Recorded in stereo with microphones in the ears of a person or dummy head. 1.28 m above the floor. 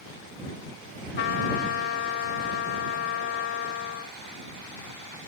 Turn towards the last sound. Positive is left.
turn(degrees=60)  # may be behind; listen again after turning